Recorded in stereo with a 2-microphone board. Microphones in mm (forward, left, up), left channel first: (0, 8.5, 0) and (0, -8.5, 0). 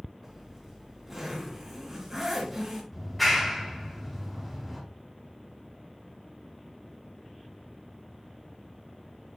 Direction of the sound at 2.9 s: 5° left (ahead or behind).